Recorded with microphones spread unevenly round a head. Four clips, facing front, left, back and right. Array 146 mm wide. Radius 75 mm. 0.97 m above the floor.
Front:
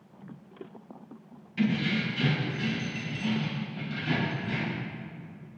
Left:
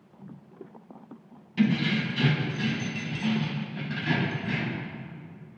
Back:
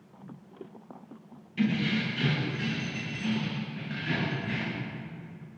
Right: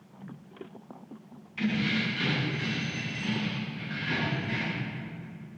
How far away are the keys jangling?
About 5 m.